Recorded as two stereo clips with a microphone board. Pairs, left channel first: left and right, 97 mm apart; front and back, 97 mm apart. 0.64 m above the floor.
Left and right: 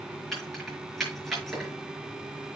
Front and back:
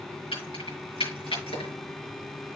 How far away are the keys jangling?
About 6 m.